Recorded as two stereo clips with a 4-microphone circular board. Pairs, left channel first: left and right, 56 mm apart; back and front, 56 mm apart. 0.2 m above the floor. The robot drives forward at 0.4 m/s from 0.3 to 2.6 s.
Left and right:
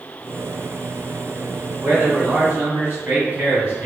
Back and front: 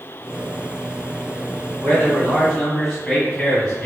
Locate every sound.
1.8 s a man speaking: 90° right, 1.7 m; by 3.9 s 110° right, 1.8 m